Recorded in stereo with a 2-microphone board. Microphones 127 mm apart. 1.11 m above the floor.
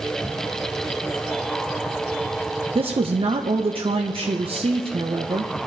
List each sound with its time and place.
2.8 s a woman speaking: 50° right (ahead or behind), 0.9 m